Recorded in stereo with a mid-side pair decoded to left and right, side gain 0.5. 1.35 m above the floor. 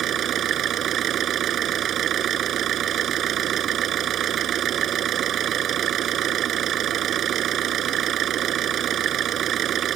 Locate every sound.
0.0 s an engine running: 60° right